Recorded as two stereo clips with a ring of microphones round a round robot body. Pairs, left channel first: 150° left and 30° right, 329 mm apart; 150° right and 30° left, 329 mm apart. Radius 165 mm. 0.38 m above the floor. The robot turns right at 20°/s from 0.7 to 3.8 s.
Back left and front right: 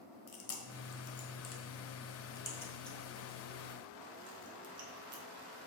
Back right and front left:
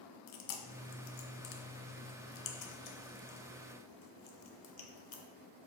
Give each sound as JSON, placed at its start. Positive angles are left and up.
{"t": 0.3, "sound": "chewing", "azimuth_deg": -165, "distance_m": 1.1}